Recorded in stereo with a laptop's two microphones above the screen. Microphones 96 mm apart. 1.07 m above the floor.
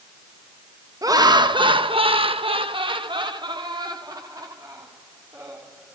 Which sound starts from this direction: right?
Laughter, at 1.0 s.